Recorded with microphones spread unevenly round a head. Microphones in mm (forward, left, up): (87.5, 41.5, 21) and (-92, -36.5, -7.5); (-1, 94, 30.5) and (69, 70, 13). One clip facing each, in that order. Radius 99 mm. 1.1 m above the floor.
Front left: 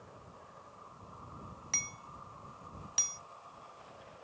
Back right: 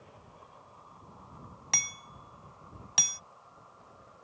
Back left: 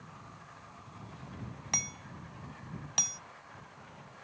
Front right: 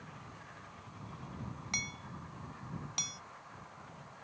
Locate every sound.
1.7 s hammering: 145° right